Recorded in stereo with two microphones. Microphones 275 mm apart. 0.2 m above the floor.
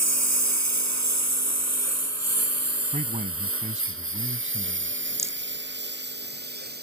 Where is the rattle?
10° right (ahead or behind).